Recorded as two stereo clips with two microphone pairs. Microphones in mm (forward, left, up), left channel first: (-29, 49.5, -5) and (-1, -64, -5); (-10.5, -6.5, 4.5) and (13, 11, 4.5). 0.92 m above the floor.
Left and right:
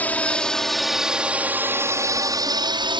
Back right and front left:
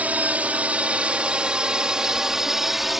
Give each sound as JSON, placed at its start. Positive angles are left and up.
{"t": 0.0, "sound": "a drone", "azimuth_deg": 30}